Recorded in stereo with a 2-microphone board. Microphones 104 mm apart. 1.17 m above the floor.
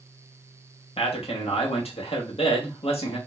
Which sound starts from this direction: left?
A man speaking, at 1.0 s.